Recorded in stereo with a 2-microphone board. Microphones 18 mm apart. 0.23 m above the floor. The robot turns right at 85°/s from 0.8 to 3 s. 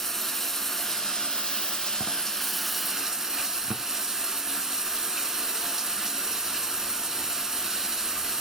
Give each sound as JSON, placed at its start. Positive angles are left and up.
{"t": 0.0, "sound": "running water", "azimuth_deg": 20, "distance_m": 1.2}